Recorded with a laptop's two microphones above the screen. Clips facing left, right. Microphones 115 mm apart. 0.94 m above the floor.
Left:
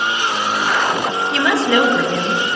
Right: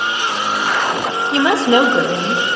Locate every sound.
1.3 s a woman speaking: 30° right (ahead or behind), 0.8 m